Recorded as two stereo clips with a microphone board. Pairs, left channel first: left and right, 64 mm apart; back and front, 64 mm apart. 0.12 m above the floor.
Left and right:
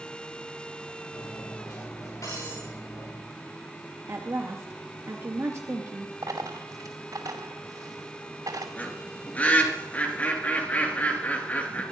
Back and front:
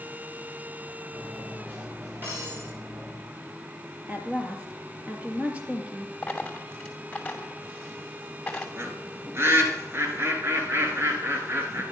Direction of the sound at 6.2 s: 105° right.